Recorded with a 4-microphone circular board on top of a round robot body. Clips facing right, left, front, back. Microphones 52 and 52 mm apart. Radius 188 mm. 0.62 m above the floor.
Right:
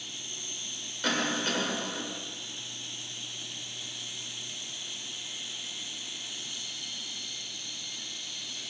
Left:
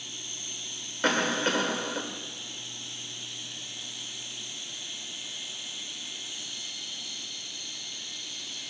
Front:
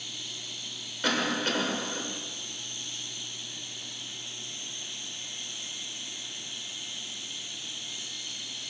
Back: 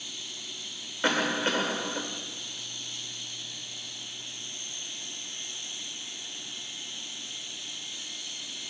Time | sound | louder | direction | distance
1.0 | a cough | left 4 dB, back 2 dB | 125° left | 1.7 m